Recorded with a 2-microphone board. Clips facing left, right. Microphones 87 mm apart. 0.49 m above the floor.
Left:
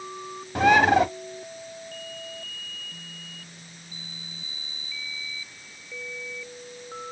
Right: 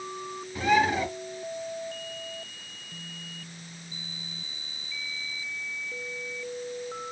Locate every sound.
0.6 s a bird: 70° left (ahead or behind), 0.7 m